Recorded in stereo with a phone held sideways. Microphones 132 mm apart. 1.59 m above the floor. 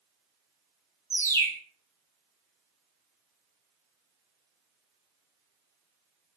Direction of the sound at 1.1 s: 20° left (ahead or behind).